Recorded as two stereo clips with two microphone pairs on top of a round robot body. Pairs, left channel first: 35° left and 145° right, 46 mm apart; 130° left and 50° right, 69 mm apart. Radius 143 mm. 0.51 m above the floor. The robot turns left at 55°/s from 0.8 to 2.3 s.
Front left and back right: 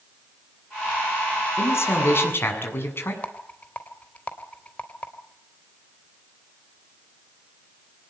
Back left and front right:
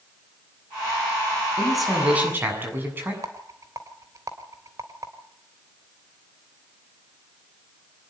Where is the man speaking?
55° left, 7.5 m; by 3.1 s 15° left, 7.5 m.